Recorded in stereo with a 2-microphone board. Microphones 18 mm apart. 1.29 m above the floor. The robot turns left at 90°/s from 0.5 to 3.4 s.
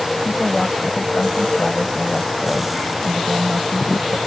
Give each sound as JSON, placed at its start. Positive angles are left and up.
{"t": 0.2, "sound": "a woman speaking", "azimuth_deg": -175}